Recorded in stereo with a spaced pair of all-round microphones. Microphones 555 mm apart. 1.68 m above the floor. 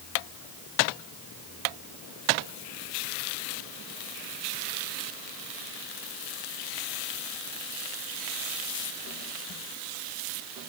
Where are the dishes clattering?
No dishes clattering in this recording.